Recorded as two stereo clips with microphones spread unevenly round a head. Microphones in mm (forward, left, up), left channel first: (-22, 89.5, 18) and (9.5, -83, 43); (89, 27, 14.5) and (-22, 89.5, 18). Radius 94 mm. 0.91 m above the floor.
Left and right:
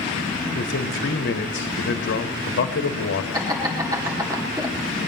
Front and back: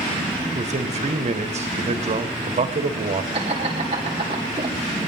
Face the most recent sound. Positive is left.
turn(degrees=-150)